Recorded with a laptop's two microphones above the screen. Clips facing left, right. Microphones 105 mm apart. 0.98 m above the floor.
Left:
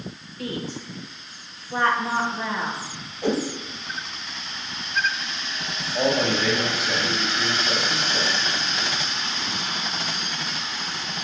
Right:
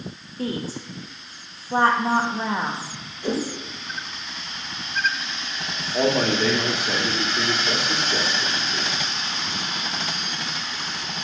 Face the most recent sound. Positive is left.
turn(degrees=-60)  # may be behind; listen again after turning